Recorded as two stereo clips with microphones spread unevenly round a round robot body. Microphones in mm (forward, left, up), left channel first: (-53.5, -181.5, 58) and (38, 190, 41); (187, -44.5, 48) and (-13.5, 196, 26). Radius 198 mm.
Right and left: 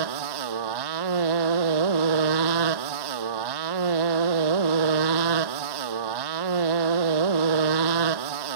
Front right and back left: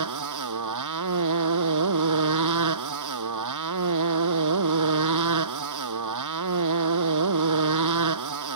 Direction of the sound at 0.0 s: 105° left.